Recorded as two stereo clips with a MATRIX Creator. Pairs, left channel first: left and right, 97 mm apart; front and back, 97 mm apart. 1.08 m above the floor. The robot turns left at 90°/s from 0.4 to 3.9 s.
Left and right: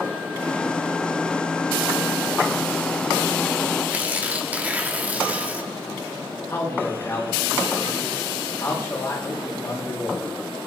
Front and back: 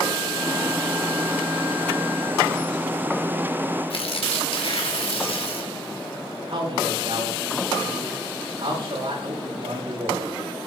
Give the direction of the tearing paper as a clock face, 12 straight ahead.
1 o'clock.